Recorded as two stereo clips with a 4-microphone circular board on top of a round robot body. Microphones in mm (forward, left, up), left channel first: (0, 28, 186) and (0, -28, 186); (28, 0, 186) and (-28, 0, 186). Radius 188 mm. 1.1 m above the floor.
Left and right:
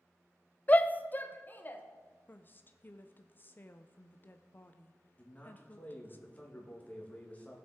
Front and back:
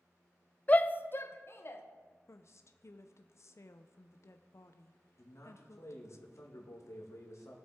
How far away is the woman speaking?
About 0.6 m.